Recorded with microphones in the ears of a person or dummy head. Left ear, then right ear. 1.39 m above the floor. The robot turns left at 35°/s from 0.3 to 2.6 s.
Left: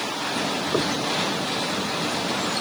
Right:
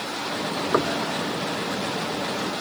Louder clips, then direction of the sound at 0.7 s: Right 3 dB; 60° right (ahead or behind).